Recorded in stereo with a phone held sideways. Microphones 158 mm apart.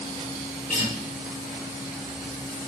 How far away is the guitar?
About 4.5 m.